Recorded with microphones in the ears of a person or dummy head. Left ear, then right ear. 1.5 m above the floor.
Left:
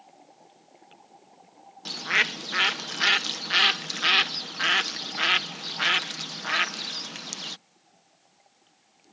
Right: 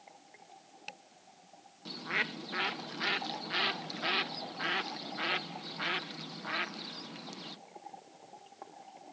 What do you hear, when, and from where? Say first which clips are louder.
1.9 s a bird: left 10 dB; 55° left (ahead or behind)